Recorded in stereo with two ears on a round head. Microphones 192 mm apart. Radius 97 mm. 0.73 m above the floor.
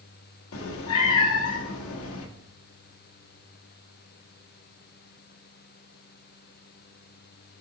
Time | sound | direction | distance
0.5 | a cat meowing | 75° left (ahead or behind) | 0.7 m